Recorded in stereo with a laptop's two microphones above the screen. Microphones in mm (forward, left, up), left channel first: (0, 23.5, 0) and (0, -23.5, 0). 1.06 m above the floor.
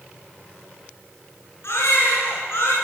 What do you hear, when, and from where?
1.6 s a baby crying: 65° left (ahead or behind), 10 m